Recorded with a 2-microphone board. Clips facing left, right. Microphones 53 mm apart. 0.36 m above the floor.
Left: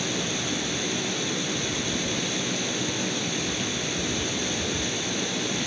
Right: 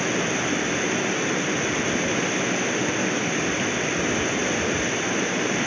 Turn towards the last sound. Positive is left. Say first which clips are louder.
# right 5 dB
turn(degrees=-40)  # may be behind; listen again after turning